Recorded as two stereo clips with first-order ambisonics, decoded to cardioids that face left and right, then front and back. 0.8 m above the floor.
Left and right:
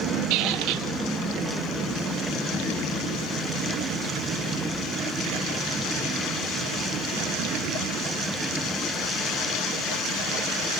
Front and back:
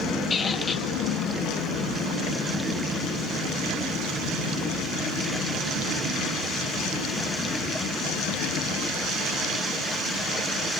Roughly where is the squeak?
Right.